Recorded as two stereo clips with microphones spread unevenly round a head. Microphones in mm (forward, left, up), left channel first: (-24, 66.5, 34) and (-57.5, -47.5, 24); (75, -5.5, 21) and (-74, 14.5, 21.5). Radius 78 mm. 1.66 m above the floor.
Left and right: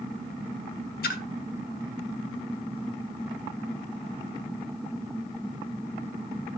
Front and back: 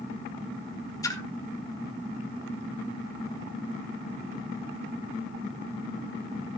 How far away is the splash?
About 1.5 m.